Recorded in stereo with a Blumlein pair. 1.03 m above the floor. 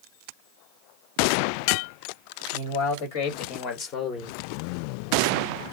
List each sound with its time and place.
2.5 s a man speaking: 55° left, 1.7 m; by 4.4 s 20° left, 1.2 m